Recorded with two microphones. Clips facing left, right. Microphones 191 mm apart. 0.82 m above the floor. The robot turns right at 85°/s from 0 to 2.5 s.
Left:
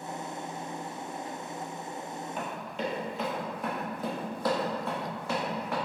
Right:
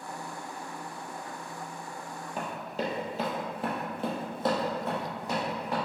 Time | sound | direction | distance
2.4 | running footsteps | 40° right (ahead or behind) | 1.0 m